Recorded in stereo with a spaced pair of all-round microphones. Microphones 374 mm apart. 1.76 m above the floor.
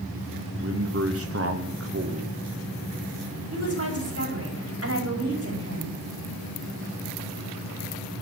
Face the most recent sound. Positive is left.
turn(degrees=-40)  # may be behind; listen again after turning